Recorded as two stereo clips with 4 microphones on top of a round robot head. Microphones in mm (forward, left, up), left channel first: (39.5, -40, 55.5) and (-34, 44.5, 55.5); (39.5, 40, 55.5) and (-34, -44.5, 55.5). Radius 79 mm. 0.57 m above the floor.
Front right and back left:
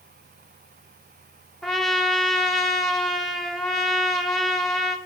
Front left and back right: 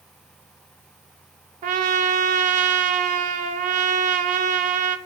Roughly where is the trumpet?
Behind right.